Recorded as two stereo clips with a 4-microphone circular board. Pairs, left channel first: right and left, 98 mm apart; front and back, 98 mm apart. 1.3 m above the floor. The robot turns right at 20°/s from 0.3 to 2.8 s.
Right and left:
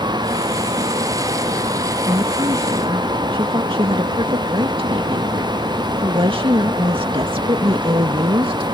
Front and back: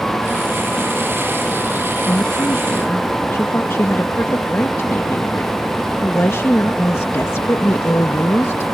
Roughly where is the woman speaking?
Ahead left.